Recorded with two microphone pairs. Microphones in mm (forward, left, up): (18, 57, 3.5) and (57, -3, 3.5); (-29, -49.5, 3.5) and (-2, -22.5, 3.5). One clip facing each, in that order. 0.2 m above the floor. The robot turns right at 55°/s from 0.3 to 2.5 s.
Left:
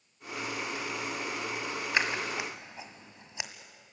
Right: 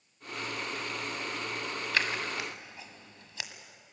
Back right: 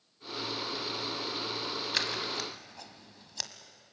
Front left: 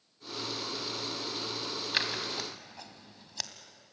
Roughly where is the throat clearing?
I don't hear throat clearing.